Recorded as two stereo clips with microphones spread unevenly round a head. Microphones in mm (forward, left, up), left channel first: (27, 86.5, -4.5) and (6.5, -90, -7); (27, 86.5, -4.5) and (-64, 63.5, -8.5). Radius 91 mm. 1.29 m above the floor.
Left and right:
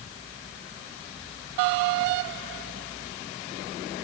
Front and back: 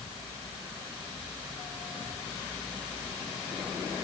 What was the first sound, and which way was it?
Only background noise.